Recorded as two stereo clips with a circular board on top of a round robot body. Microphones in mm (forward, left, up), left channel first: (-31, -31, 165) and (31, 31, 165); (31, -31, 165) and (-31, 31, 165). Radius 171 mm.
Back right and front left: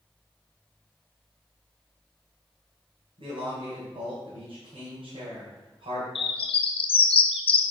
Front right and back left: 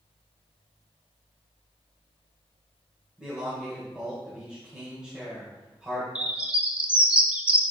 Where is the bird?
145° right, 0.6 m.